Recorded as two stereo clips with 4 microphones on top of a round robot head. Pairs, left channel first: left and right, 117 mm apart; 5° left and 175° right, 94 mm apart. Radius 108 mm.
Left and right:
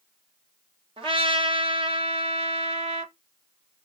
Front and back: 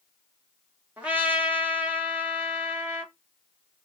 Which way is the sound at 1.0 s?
105° right.